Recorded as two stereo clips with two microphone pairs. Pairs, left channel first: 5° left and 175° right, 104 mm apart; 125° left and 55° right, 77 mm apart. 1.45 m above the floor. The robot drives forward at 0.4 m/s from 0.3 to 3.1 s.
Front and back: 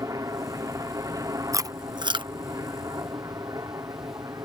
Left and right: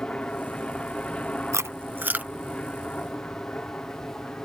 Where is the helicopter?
175° right.